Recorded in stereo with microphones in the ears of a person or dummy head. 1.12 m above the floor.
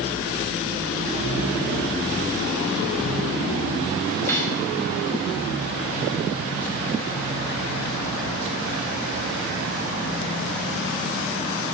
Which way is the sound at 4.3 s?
5° left (ahead or behind).